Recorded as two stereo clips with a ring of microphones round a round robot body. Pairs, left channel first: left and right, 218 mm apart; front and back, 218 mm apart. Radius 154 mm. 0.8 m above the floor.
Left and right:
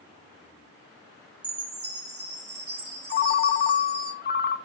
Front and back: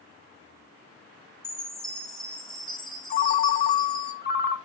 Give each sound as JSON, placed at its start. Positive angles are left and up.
{"t": 1.4, "sound": "a chime", "azimuth_deg": -90, "distance_m": 2.0}
{"t": 3.1, "sound": "a ringtone", "azimuth_deg": 45, "distance_m": 0.5}